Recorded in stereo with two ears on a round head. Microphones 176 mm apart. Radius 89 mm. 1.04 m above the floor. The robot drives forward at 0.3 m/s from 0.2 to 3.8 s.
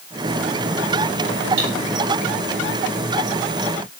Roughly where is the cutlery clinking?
Right.